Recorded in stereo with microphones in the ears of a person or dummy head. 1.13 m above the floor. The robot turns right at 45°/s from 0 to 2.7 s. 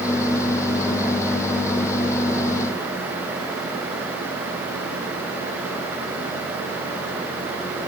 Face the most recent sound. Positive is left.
No sound to turn to.